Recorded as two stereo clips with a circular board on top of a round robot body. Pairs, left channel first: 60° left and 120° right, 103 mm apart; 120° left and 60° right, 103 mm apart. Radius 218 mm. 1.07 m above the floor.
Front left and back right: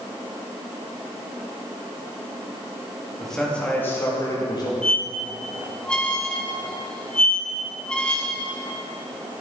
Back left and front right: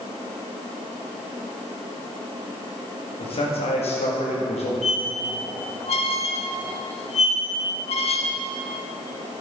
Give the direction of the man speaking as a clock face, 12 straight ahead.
7 o'clock.